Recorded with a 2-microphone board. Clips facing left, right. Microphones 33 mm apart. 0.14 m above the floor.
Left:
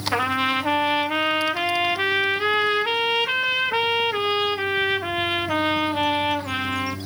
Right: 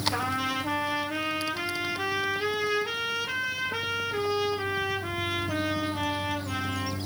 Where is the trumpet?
50° left (ahead or behind), 0.5 m.